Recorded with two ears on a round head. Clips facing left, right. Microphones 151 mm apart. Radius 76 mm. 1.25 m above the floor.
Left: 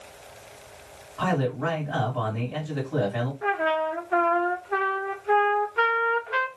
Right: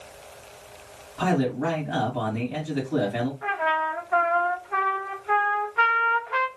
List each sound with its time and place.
1.2 s a man speaking: 35° right (ahead or behind), 2 m
3.4 s a trumpet: 30° left (ahead or behind), 1.2 m